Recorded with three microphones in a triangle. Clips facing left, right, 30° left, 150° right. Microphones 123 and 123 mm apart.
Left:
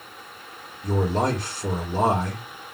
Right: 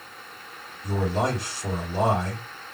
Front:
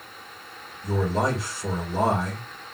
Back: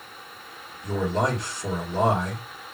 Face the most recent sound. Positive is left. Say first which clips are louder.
# left 2 dB, even
turn(degrees=115)